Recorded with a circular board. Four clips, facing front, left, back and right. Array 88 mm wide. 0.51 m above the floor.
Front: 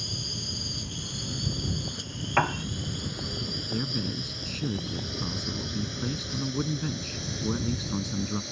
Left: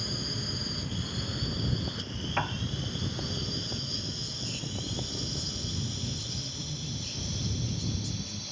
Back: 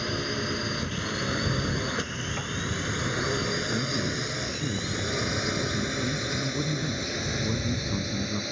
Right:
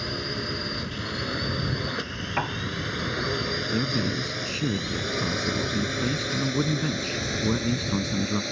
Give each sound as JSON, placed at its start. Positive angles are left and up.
{"t": 0.0, "sound": "a drone", "azimuth_deg": -150}
{"t": 2.4, "sound": "a piano", "azimuth_deg": -10}
{"t": 3.7, "sound": "a man speaking", "azimuth_deg": -80}